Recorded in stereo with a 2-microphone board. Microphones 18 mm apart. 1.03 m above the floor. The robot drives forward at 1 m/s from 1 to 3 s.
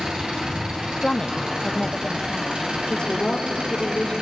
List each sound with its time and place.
0.0 s an engine running: 65° right (ahead or behind), 7.5 m; by 4.2 s 80° right, 7 m
1.0 s a woman speaking: 30° left (ahead or behind), 0.7 m; by 2.8 s 10° left (ahead or behind), 2.0 m
2.9 s a woman speaking: 65° left (ahead or behind), 3 m; by 4.1 s 60° left (ahead or behind), 3 m